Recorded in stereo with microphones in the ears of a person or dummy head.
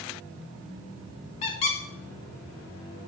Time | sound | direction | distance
1.4 | a squeak | 40° left (ahead or behind) | 1.1 m